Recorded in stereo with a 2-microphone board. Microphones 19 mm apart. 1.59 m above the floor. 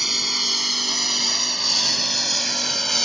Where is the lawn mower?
15° right (ahead or behind); by 3.0 s 5° left (ahead or behind).